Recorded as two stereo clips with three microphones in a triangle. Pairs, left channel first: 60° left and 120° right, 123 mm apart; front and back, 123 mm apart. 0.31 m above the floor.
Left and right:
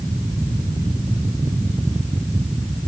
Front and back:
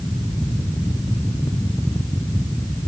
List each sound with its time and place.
Only background noise.